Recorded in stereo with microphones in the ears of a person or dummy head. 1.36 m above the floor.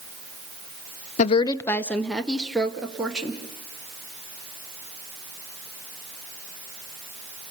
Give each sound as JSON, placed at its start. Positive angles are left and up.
{"t": 1.2, "sound": "a woman speaking", "side_deg": 50, "distance_m": 0.5}